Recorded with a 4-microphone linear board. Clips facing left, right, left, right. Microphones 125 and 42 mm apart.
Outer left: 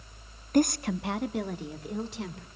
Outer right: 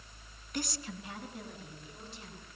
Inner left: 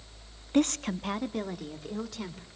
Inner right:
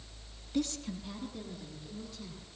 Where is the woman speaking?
45° left (ahead or behind), 0.6 m; by 2.5 s 75° left (ahead or behind), 2.5 m.